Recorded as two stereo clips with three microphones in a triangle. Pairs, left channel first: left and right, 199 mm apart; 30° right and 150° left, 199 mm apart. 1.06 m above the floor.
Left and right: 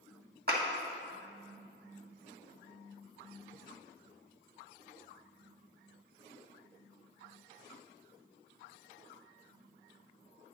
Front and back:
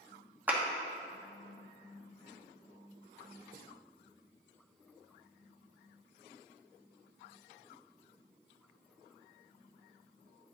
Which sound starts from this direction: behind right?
A clap, at 0.5 s.